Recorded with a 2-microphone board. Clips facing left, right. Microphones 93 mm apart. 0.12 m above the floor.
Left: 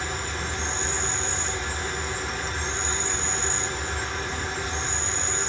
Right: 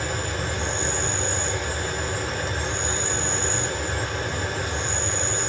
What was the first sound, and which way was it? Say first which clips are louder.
An insect: right 3 dB; 50° right (ahead or behind).